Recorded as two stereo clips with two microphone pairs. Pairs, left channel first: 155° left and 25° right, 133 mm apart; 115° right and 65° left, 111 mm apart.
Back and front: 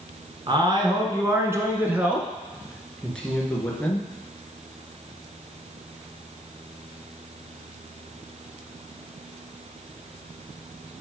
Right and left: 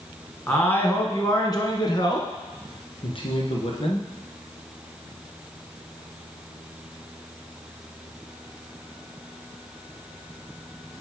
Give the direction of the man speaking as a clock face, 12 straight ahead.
2 o'clock.